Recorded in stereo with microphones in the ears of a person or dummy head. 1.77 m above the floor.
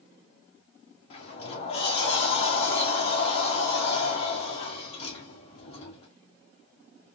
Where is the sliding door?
35° left (ahead or behind), 1.0 m.